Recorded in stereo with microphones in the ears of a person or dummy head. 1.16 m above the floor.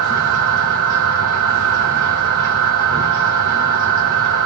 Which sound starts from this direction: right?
A machine running, at 0.0 s.